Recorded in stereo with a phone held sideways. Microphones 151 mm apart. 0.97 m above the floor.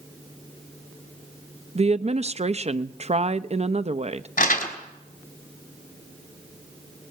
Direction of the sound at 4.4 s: 75° left (ahead or behind).